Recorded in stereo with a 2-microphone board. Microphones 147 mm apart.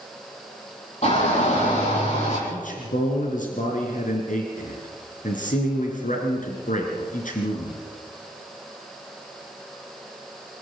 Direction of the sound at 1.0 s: 55° left (ahead or behind).